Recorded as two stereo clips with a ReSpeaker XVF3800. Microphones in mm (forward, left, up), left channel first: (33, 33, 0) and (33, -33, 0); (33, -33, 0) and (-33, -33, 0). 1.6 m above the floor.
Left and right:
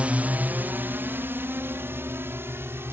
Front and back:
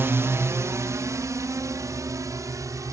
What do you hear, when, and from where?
0.0 s a drone: 150° right; by 2.9 s 145° right